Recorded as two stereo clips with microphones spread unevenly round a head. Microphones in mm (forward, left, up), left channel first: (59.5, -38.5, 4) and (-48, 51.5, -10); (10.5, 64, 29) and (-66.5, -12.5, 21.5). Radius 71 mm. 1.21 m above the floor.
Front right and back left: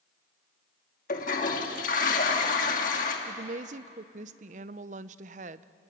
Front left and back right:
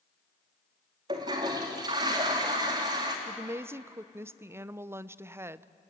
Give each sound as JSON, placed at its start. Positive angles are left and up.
{"t": 1.1, "sound": "a toilet flushing", "azimuth_deg": -75, "distance_m": 2.5}
{"t": 3.3, "sound": "a woman speaking", "azimuth_deg": 160, "distance_m": 0.6}